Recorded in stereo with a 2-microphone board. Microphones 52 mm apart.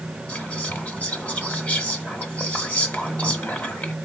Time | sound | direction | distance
0.3 | whispering | 30° left (ahead or behind) | 1.2 m